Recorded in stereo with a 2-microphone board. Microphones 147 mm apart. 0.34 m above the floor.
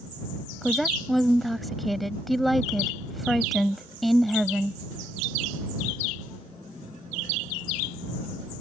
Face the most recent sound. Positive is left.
turn(degrees=0)  # may be behind; listen again after turning